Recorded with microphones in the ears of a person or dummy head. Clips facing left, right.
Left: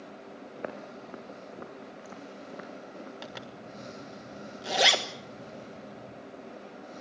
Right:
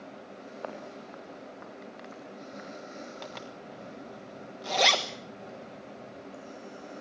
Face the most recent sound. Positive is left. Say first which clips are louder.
# right 1 dB
turn(degrees=10)  # may be behind; listen again after turning